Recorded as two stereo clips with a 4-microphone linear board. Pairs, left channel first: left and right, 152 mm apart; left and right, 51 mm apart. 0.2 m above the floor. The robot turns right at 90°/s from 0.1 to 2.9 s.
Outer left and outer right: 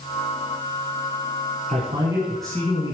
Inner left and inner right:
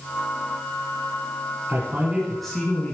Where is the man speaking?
65° right, 2 m; by 2.9 s 45° left, 2 m.